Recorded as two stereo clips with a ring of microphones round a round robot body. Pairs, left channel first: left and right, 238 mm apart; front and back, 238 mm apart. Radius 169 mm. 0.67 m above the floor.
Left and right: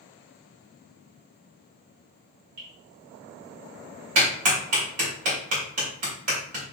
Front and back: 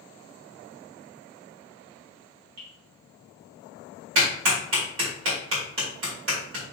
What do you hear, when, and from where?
2.6 s dripping: 140° right, 2 m
4.2 s a clap: 130° right, 1.7 m